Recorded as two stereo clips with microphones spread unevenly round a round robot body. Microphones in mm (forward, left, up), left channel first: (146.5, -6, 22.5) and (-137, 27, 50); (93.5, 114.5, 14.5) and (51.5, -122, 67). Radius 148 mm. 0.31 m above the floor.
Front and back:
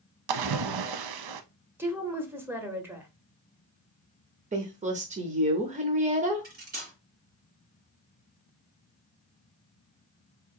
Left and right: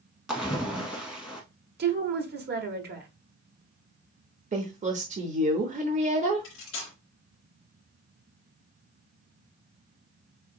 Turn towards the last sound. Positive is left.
turn(degrees=115)